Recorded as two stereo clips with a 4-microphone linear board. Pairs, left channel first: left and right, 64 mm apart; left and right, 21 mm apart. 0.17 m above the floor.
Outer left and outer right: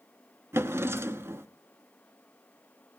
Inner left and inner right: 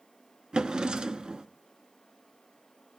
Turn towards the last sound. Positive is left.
turn(degrees=-40)  # may be behind; listen again after turning